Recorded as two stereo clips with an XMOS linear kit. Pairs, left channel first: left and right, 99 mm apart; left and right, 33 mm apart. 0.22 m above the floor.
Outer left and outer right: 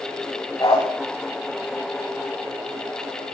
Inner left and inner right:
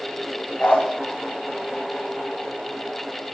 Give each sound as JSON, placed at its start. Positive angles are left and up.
{"t": 0.6, "sound": "a dog barking", "side_deg": 35, "distance_m": 6.5}